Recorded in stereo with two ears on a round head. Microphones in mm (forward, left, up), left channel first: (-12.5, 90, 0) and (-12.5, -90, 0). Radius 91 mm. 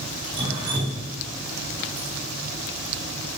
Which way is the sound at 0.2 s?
25° right (ahead or behind).